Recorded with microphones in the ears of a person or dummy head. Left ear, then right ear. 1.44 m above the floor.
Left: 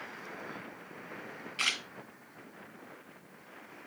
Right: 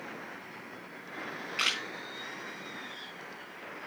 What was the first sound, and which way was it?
A camera shutter, 5° right (ahead or behind).